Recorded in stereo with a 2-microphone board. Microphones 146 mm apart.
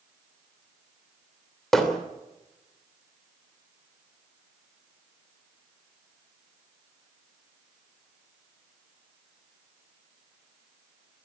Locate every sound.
1.7 s hammering: centre (ahead or behind), 3 m